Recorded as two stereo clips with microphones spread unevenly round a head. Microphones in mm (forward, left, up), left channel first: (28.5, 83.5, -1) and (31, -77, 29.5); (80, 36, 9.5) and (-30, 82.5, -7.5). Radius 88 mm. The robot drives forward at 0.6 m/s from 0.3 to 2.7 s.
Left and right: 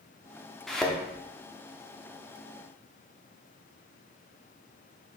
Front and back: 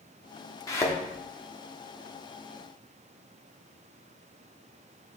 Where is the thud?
10° right, 1.1 m; by 1.0 s 15° right, 1.0 m.